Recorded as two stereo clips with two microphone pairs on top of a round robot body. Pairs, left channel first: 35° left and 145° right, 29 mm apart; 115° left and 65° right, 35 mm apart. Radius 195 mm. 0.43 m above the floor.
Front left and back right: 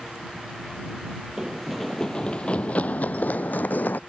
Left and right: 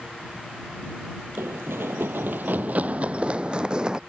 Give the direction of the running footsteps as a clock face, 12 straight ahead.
2 o'clock.